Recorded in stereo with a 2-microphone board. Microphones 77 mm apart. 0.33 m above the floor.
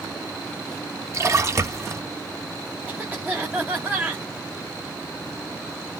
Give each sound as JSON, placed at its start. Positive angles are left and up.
{"t": 1.1, "sound": "a splash", "side_deg": -40, "distance_m": 0.7}
{"t": 2.9, "sound": "a cough", "side_deg": -25, "distance_m": 1.1}